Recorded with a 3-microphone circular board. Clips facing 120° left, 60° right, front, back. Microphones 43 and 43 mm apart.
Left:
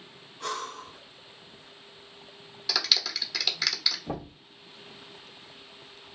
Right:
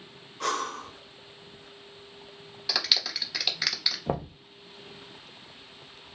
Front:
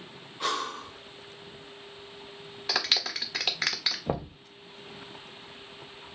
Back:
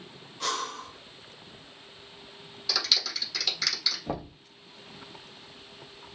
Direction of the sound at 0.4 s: 75° right.